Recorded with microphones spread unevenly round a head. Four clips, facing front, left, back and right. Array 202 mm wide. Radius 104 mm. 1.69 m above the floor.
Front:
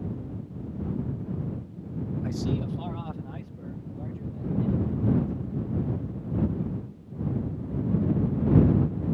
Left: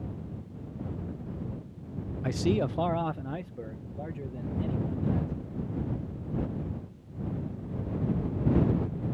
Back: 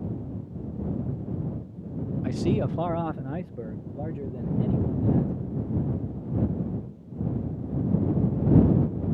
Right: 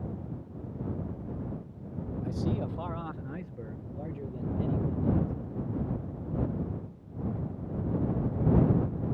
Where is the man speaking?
90° left; by 5.3 s 170° right.